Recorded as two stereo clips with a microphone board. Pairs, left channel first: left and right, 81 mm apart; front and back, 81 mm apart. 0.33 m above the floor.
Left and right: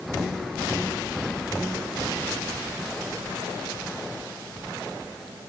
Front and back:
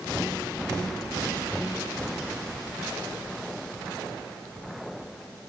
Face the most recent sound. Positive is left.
No sound to turn to.